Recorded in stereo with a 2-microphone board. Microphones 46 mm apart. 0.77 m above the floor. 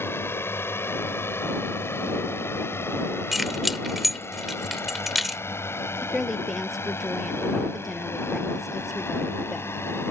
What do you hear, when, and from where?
0.0 s a drone: 65° left (ahead or behind); by 10.1 s 70° left (ahead or behind)
3.3 s keys jangling: 5° right (ahead or behind)
6.0 s a woman speaking: 5° right (ahead or behind)